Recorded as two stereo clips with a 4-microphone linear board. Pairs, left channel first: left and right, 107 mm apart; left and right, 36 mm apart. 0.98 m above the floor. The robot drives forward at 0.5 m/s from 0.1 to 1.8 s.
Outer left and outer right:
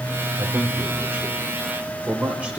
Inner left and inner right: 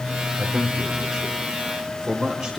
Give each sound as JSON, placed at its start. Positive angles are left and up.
{"t": 0.4, "sound": "a man speaking", "side_deg": -15, "distance_m": 3.5}